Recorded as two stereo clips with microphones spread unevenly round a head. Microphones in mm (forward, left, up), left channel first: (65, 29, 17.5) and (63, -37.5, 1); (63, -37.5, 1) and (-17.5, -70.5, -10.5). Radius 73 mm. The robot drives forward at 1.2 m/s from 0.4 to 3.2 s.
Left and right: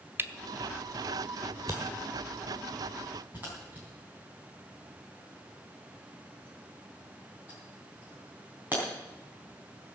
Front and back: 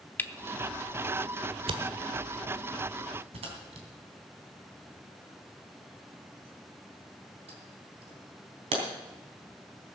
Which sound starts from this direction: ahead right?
A camera shutter, at 0.2 s.